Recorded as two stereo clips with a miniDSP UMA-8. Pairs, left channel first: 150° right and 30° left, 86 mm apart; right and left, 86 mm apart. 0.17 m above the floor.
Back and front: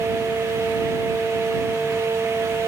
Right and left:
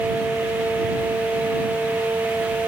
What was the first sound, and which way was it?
Only background noise.